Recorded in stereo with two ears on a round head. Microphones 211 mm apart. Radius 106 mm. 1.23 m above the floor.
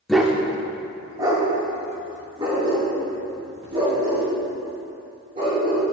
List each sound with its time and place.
0.1 s a dog barking: centre (ahead or behind), 0.9 m; by 5.8 s 25° right (ahead or behind), 9.5 m